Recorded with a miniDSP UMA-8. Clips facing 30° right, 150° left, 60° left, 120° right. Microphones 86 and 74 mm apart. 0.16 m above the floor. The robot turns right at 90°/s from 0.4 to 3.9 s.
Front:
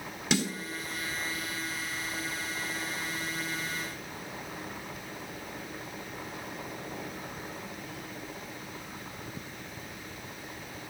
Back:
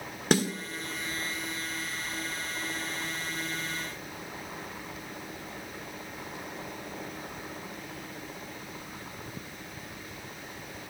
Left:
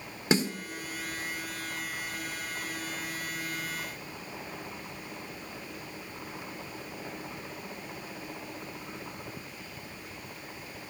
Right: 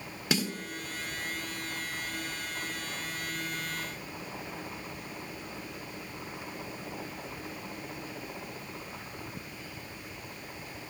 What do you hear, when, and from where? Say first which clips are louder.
0.3 s a snare drum: back 4 dB, left 4 dB; 120° left, 1.6 m; by 0.5 s 130° left, 1.6 m